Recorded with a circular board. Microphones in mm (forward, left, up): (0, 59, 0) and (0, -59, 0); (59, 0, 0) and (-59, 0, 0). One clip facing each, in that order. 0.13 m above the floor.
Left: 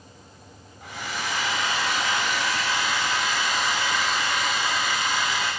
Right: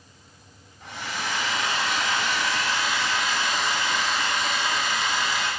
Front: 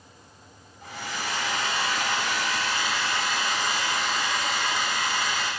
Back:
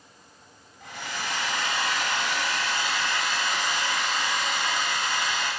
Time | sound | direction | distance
0.8 | a hair dryer | 10° left | 1.8 m